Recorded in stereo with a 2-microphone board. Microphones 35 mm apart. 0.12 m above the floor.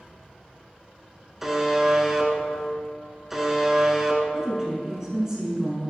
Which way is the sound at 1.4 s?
10° right (ahead or behind).